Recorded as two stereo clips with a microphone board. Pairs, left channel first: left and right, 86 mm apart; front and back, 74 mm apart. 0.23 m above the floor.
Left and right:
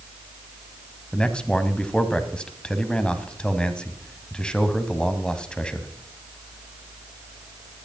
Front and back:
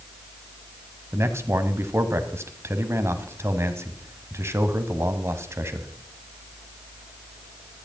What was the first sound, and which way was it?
A man speaking, 165° left.